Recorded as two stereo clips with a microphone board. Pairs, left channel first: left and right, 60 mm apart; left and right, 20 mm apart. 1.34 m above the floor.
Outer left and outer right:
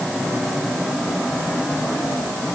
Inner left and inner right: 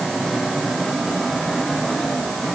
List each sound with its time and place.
Only background noise.